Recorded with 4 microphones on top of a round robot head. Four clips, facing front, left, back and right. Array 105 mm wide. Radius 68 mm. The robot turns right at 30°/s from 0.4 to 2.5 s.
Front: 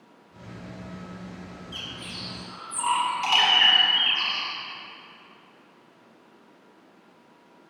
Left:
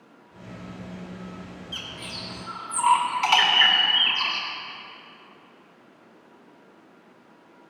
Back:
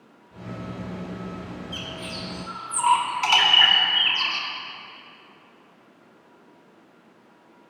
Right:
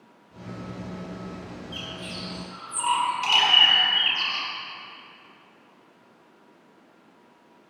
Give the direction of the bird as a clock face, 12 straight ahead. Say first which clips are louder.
Right 2 dB, back 5 dB; 9 o'clock.